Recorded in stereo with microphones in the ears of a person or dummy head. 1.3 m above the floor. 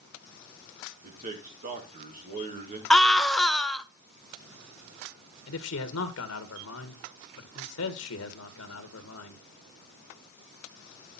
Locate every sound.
1.0 s a man speaking: 40° right (ahead or behind), 2 m
2.9 s a scream: 5° left (ahead or behind), 0.8 m
5.5 s a man speaking: 75° left (ahead or behind), 1.5 m